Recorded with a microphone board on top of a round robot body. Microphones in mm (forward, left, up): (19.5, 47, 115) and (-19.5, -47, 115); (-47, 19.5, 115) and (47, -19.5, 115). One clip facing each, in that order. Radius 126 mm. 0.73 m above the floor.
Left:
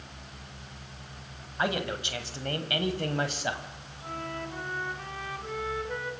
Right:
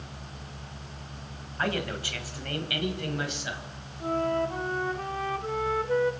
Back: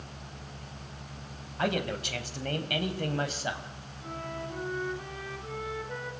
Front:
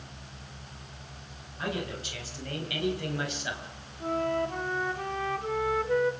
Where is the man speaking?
145° left, 4 m; by 3.7 s 105° left, 4.5 m.